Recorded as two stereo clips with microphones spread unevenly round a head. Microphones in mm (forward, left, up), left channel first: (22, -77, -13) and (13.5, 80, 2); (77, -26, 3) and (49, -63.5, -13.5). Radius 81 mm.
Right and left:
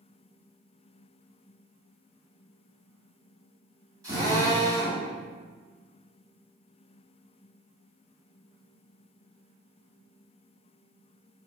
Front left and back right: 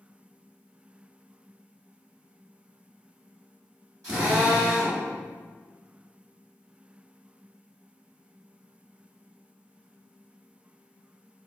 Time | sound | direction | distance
4.0 | a drill | 165° left | 1.5 m